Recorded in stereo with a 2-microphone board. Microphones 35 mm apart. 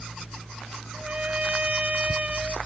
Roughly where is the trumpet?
Right.